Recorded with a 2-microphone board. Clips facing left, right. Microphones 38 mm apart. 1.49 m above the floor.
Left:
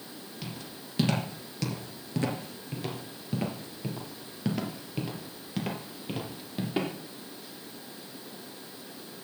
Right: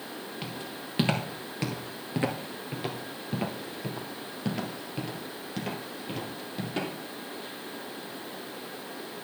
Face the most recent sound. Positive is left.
turn(degrees=15)  # may be behind; listen again after turning